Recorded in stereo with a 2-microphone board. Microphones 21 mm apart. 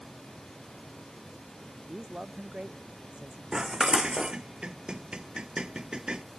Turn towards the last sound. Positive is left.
turn(degrees=-40)  # may be behind; listen again after turning